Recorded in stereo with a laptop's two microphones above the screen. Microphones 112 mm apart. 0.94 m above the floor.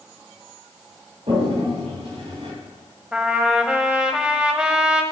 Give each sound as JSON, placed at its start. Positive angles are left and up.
{"t": 1.3, "sound": "a toilet flushing", "side_deg": -75, "distance_m": 3.0}
{"t": 3.1, "sound": "a trumpet", "side_deg": -10, "distance_m": 1.0}